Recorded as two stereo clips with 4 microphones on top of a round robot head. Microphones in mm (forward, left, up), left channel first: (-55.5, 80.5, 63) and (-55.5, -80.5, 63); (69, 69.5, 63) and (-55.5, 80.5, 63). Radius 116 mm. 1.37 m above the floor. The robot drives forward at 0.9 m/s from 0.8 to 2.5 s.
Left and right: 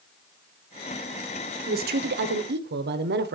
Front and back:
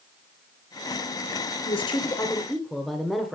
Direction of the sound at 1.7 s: 55° right.